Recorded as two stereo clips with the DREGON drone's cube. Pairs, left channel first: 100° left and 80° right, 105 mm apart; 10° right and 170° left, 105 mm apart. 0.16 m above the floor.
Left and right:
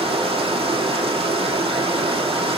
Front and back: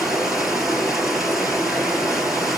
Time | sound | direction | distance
0.0 | running water | 105° right | 3 m